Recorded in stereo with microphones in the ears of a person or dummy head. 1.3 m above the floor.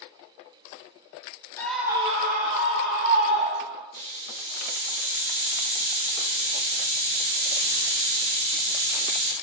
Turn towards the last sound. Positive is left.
turn(degrees=-65)  # may be behind; listen again after turning